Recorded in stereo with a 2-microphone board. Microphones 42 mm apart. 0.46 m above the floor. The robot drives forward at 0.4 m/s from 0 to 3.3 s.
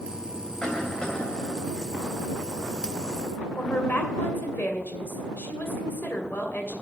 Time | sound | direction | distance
0.6 | a cough | 15° left (ahead or behind) | 3 m
3.6 | a woman speaking | 55° left (ahead or behind) | 2.5 m